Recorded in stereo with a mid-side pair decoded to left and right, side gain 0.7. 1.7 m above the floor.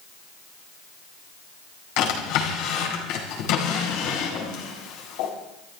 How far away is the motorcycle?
I don't hear a motorcycle.